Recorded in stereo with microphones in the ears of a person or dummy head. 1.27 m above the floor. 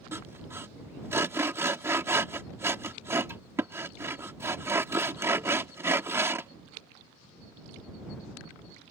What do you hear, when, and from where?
0.1 s sawing: 20° right (ahead or behind)